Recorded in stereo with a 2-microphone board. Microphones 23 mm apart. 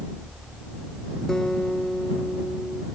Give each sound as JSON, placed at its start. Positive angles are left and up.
{"t": 1.3, "sound": "a guitar", "side_deg": 25}